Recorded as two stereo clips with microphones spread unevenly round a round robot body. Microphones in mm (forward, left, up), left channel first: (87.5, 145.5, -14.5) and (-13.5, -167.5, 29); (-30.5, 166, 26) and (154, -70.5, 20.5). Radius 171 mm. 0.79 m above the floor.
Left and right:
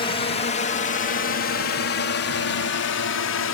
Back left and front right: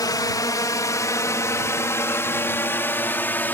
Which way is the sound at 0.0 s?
70° left.